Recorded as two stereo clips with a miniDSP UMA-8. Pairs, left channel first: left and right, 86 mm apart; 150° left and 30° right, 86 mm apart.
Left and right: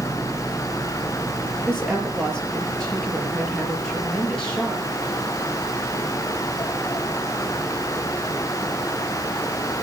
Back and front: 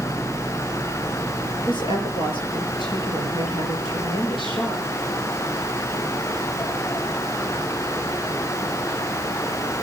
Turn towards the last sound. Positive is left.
turn(degrees=175)